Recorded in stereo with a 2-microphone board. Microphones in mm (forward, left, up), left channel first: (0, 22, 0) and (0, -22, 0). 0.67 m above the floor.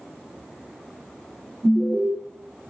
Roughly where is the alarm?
Centre.